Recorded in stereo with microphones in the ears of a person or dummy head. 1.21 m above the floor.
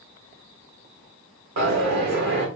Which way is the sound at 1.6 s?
55° right (ahead or behind).